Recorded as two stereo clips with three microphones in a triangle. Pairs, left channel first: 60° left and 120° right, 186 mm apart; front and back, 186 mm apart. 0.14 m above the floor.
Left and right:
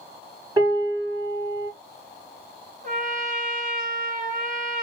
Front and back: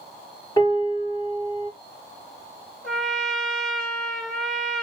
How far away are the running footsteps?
No running footsteps in this recording.